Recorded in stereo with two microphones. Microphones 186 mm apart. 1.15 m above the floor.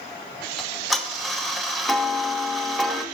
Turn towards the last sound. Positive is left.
turn(degrees=0)  # may be behind; listen again after turning